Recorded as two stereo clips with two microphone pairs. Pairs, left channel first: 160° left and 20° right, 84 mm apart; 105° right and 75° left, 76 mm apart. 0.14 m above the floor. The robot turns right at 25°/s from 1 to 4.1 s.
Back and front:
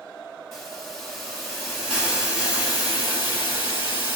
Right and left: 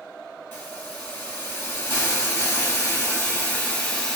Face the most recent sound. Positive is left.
turn(degrees=-45)